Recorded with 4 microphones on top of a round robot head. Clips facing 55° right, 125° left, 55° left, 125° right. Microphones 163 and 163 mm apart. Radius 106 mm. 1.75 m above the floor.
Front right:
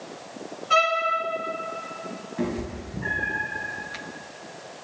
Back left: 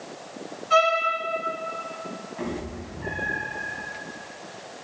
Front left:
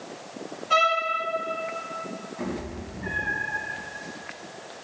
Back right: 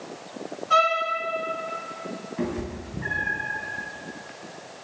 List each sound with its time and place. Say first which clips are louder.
0.7 s a violin: back left 3 dB, back right 1 dB; 20° right, 2.0 m
2.4 s a cat meowing: front right 4 dB, back right 4 dB; 100° right, 3 m